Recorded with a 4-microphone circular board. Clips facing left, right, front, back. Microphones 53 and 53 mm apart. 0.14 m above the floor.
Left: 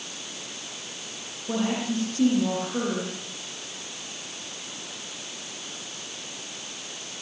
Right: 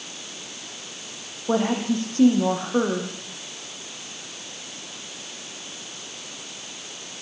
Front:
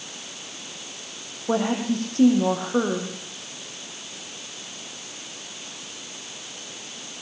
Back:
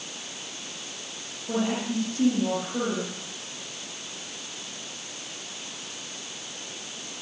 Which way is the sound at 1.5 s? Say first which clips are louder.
Right 5 dB, front 4 dB; 40° right.